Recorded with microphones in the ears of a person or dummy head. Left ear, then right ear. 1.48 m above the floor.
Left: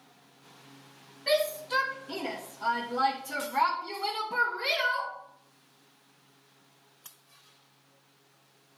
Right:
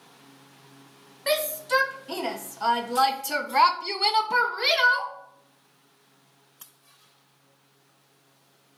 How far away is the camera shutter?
No camera shutter in this recording.